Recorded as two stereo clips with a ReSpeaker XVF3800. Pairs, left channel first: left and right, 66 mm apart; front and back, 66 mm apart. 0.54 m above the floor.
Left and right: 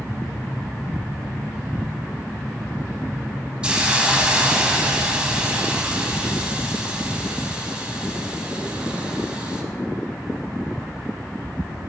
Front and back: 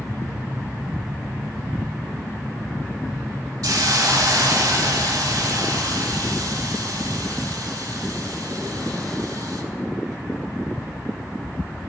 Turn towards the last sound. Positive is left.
turn(degrees=-165)